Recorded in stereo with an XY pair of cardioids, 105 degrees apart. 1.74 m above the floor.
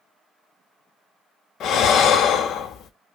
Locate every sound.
1.6 s breathing: 70° left, 0.6 m